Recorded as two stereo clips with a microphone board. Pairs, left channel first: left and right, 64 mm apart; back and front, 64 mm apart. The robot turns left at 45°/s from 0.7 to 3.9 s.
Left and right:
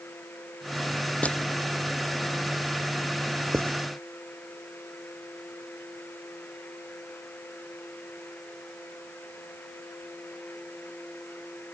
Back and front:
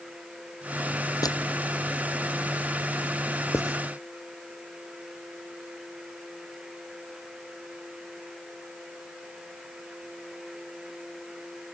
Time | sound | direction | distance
1.2 | crushing | 160° left | ?
3.5 | writing | 140° right | ?